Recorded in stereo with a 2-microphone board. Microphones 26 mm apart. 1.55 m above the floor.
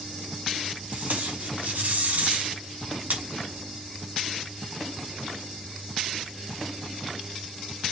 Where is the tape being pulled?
65° right (ahead or behind), 5.5 m.